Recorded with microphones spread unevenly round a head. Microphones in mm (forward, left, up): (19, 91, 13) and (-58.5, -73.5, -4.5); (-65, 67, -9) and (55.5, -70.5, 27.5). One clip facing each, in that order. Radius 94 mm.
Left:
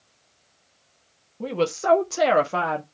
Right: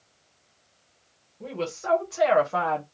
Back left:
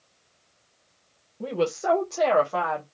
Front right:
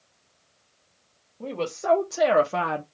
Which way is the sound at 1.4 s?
65° left.